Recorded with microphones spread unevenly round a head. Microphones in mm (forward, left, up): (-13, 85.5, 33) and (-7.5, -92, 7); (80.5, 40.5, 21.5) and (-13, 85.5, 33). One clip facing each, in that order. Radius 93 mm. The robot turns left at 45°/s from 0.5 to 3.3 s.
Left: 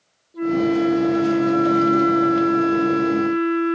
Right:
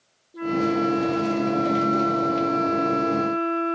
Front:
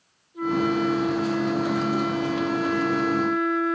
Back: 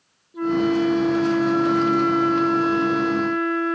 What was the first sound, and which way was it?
A flute, 170° right.